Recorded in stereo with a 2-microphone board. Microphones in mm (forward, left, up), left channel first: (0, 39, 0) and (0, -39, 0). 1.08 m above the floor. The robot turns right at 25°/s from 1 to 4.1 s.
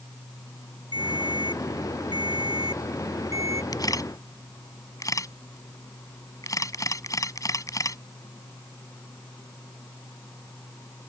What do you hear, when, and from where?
0.9 s a ringtone: 105° right; by 3.6 s 40° right
3.7 s a camera shutter: 55° left (ahead or behind); by 8.0 s 45° left (ahead or behind)